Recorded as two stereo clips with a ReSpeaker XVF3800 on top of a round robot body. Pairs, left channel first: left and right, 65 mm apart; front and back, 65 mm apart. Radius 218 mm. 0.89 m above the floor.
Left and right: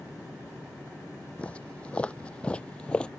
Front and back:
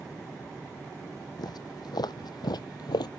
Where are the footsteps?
20° left; by 3.1 s 15° left.